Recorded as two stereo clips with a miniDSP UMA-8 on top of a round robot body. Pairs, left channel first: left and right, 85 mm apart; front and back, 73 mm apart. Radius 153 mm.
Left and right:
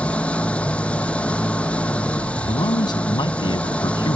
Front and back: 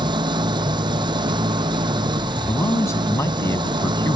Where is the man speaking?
50° left.